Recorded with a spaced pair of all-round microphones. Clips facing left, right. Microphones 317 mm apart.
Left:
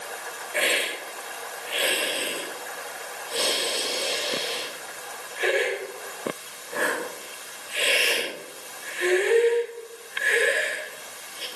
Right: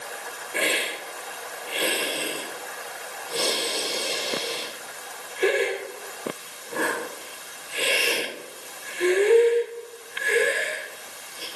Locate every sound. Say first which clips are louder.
0.5 s a hiss: even; 50° right (ahead or behind), 4 m